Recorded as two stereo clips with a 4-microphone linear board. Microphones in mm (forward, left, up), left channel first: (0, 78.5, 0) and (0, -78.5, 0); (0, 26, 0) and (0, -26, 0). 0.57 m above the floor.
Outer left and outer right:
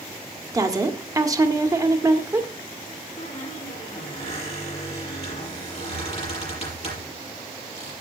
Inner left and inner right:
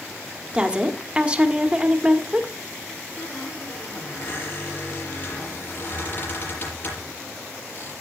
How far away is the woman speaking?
About 1.4 m.